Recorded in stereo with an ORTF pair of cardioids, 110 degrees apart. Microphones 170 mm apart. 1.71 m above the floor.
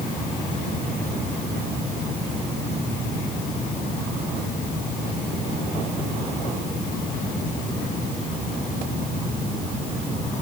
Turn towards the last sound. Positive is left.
No sound to turn to.